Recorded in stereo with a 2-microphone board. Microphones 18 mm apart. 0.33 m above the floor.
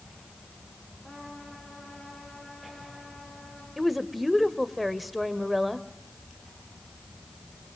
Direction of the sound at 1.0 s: 40° left (ahead or behind).